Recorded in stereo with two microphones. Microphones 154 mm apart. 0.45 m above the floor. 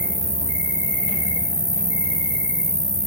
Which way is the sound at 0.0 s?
25° right (ahead or behind).